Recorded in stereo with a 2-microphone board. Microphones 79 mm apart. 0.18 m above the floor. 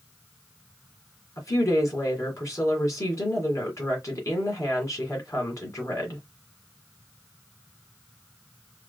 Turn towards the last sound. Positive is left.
turn(degrees=40)  # may be behind; listen again after turning